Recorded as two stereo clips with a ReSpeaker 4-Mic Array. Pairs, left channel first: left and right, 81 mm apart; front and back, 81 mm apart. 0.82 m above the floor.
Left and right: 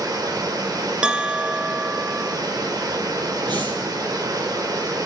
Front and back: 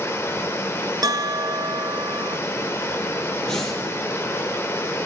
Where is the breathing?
80° right, 5 m.